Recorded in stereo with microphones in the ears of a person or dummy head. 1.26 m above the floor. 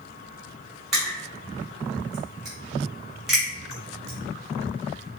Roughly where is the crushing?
Centre.